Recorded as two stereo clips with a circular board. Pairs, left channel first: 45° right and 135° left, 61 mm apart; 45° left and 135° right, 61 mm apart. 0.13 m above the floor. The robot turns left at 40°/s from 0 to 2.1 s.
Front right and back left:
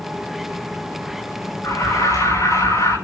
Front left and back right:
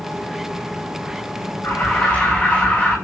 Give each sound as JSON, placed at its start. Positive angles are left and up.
{"t": 1.6, "sound": "an alarm", "azimuth_deg": -5, "distance_m": 8.5}